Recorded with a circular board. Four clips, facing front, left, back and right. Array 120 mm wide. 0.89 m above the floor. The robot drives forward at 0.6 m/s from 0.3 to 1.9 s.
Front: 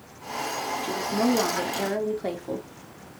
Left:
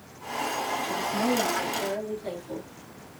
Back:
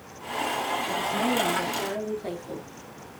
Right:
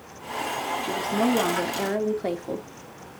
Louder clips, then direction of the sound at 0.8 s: Right 5 dB, front 6 dB; 50° right.